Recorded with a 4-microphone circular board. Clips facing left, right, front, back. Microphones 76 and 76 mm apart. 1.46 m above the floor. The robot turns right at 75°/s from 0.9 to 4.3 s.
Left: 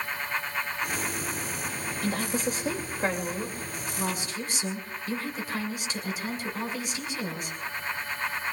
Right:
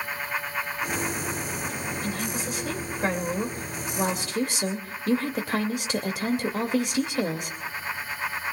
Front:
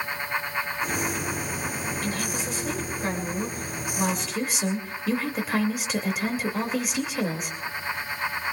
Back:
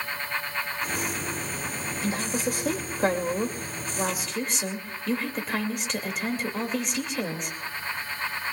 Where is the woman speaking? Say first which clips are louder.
Left 6 dB, back 2 dB; 105° left, 2 m; by 7.5 s 85° right, 2 m.